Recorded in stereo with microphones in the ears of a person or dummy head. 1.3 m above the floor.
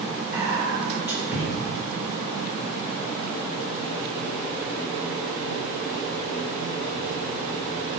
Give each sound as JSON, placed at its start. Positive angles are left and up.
{"t": 0.3, "sound": "whispering", "side_deg": -15, "distance_m": 1.0}